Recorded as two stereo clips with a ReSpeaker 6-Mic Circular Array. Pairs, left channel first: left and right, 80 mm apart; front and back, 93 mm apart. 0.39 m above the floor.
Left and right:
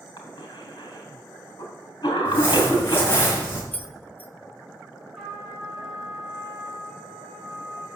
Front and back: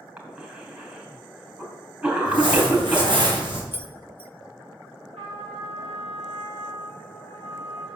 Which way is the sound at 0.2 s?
110° left.